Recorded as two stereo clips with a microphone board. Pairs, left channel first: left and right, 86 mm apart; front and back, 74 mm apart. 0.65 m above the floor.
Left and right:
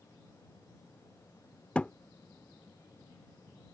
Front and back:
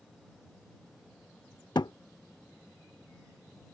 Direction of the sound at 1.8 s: 15° left.